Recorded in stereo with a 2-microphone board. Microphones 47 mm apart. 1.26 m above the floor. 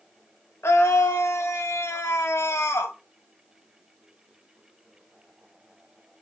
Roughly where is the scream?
Left.